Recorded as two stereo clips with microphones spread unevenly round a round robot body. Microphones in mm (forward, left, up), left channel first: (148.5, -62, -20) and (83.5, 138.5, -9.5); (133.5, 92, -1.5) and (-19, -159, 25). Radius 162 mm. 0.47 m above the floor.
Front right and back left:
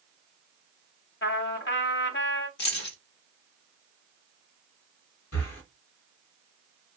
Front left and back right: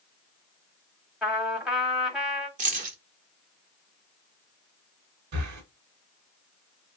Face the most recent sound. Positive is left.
turn(degrees=-90)